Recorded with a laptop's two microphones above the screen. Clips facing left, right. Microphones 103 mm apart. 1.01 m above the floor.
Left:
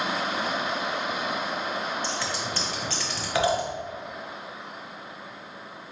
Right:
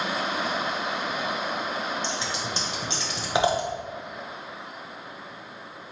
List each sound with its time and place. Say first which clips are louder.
2.0 s scissors: even; 20° right (ahead or behind), 0.8 m